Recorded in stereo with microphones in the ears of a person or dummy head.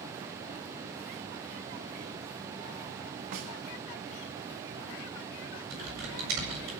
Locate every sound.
3.3 s a snare drum: 60° right (ahead or behind), 1.7 m
5.7 s typing on a keyboard: 70° right (ahead or behind), 7.5 m